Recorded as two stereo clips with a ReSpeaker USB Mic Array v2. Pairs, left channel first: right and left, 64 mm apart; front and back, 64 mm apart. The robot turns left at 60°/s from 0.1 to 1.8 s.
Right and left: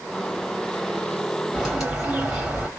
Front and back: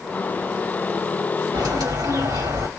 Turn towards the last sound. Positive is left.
turn(degrees=175)